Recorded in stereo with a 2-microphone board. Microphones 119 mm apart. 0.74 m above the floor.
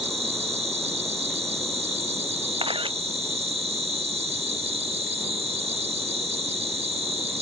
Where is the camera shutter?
45° right (ahead or behind).